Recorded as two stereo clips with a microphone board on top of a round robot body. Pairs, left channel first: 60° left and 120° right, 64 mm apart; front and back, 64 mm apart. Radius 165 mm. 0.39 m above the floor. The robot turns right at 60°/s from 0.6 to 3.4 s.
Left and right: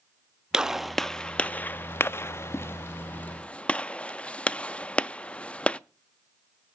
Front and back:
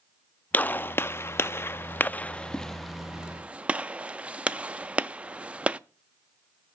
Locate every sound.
0.5 s a gunshot: 45° right, 0.6 m; by 5.8 s 120° left, 0.6 m